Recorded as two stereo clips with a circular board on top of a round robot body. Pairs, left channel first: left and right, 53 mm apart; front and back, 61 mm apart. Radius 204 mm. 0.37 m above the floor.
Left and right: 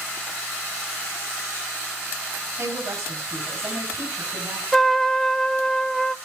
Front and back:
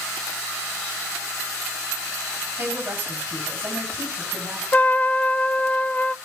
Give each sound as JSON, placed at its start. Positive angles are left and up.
{"t": 2.6, "sound": "a woman speaking", "azimuth_deg": -130, "distance_m": 5.5}
{"t": 4.7, "sound": "a trumpet", "azimuth_deg": 10, "distance_m": 1.2}